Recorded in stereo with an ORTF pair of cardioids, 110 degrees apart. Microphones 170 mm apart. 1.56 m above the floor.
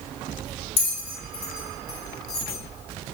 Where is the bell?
35° left, 1.5 m.